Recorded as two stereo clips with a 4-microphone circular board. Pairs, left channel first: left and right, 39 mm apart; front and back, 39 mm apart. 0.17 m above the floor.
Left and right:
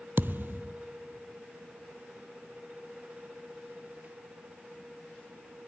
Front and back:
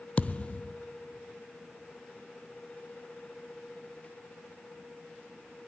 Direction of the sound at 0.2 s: 55° right.